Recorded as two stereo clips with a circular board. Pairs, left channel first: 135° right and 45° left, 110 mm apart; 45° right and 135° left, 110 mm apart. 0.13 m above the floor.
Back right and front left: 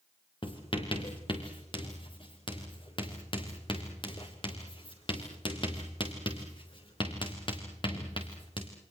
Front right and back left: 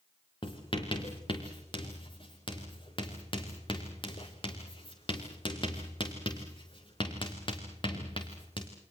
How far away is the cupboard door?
I don't hear a cupboard door.